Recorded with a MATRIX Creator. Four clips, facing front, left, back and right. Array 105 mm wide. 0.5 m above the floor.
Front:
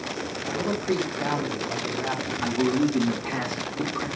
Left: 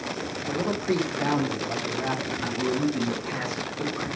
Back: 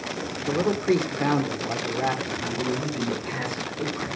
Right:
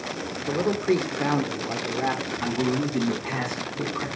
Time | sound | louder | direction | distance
0.5 | a man speaking | right 4 dB, back 4 dB | 140° right | 1.5 m
2.4 | a man speaking | right 1 dB, front 8 dB | 60° right | 4.5 m